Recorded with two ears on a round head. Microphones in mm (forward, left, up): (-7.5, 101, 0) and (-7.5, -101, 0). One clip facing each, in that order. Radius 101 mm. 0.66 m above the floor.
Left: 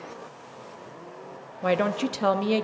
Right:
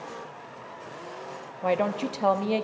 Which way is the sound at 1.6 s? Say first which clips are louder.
Left 2 dB; 15° left (ahead or behind).